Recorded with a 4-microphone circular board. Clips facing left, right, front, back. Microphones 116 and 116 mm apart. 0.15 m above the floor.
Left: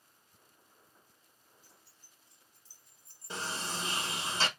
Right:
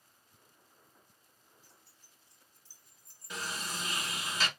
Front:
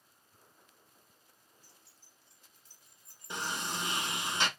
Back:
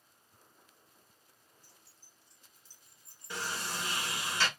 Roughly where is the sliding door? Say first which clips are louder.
Left 2 dB, front 1 dB; ahead left.